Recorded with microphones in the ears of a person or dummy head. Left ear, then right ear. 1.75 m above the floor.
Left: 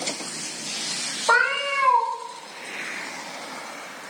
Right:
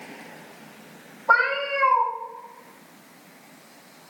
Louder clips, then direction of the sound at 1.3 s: Even; 35° left (ahead or behind).